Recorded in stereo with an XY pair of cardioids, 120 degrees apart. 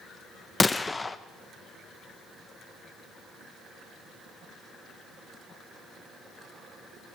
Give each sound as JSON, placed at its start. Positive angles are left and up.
{"t": 0.6, "sound": "a gunshot", "azimuth_deg": 15, "distance_m": 1.1}